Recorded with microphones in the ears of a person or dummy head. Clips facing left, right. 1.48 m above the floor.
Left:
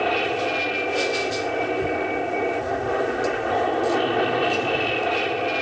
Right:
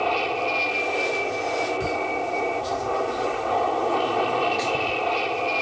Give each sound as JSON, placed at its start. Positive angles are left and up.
{"t": 0.0, "sound": "an aircraft", "side_deg": 20}